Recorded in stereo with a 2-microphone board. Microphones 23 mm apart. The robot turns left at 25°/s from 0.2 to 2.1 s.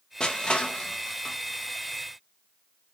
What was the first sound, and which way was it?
Crushing, 35° left (ahead or behind).